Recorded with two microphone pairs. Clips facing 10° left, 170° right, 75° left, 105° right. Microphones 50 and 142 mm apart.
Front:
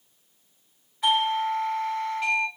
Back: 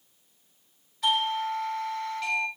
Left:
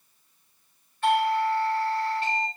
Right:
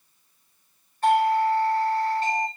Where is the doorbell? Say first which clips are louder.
Front 3 dB, right 3 dB; 60° right, 5 m.